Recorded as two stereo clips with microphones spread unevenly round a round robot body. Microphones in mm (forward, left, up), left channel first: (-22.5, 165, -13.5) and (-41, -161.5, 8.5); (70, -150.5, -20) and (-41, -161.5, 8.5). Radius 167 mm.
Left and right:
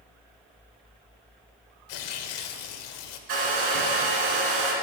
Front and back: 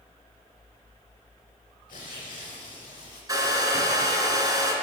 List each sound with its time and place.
1.9 s tearing paper: 65° left, 1.1 m
3.3 s a hair dryer: 115° right, 2.5 m